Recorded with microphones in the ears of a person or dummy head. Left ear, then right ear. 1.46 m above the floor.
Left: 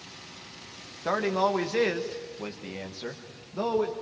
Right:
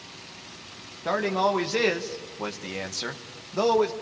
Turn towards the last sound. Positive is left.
turn(degrees=-70)  # may be behind; listen again after turning